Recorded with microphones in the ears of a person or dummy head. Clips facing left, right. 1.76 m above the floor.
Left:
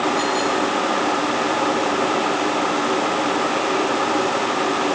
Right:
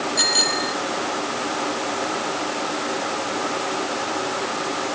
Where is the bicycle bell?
75° right (ahead or behind).